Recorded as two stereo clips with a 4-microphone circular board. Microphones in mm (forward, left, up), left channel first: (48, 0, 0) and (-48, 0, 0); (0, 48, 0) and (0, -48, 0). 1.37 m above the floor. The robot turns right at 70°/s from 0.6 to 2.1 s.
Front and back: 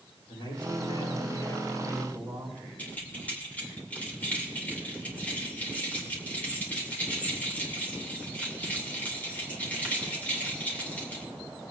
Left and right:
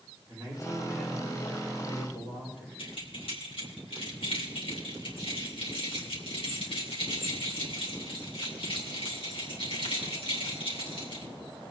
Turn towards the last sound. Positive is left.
turn(degrees=75)